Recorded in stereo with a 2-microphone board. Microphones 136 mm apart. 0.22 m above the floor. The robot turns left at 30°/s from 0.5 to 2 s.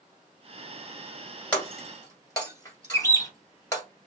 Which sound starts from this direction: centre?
Breaking glass, at 1.5 s.